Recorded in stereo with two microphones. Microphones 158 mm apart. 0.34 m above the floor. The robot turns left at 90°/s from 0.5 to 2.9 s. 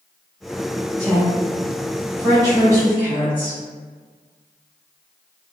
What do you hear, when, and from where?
1.0 s a woman speaking: 10° left (ahead or behind), 1.2 m; by 3.6 s 15° right (ahead or behind), 1.2 m